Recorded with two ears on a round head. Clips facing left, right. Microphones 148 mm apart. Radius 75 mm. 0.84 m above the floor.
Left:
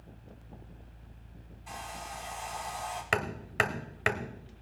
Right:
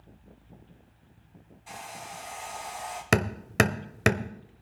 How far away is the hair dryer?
About 4 m.